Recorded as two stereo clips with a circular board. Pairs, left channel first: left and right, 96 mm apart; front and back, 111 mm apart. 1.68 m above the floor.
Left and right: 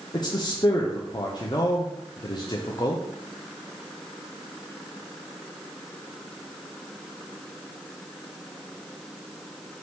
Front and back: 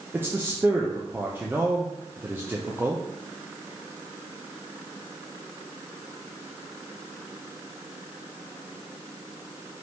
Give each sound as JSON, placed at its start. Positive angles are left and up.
{"t": 0.1, "sound": "a man speaking", "azimuth_deg": 115, "distance_m": 0.5}